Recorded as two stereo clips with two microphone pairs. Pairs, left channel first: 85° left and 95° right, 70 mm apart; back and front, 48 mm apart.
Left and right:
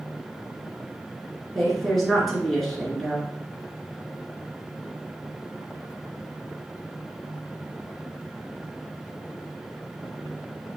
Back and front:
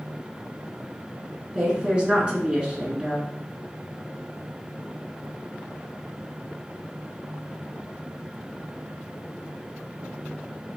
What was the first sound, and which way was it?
A woman speaking, 10° left.